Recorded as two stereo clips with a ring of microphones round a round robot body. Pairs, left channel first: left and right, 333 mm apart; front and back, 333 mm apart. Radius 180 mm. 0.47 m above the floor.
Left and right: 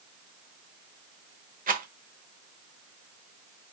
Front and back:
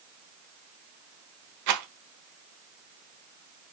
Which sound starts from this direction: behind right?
A rattle, at 1.7 s.